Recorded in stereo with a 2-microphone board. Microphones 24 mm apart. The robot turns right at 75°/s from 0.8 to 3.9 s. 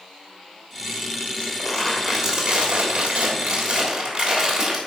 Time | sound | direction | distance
1.4 | crumpling | 125° left | 3 m